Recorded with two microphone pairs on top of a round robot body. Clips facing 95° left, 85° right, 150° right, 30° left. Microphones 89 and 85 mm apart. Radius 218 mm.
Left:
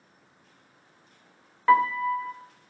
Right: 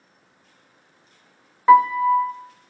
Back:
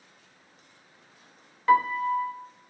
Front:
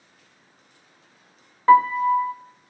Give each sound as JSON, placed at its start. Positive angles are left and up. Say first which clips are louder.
{"t": 1.7, "sound": "a piano", "louder": "right 7 dB, front 7 dB", "azimuth_deg": -10, "distance_m": 0.8}